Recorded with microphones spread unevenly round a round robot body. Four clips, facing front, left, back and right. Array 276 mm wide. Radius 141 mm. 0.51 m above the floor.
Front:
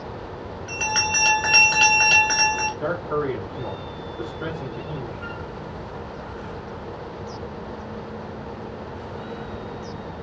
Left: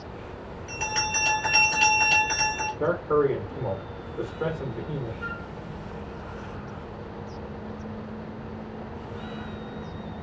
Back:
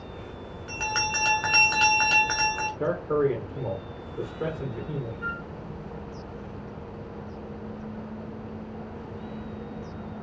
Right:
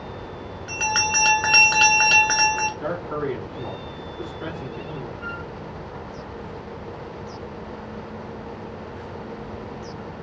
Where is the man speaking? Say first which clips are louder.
Left 5 dB, even; 135° left, 1.3 m.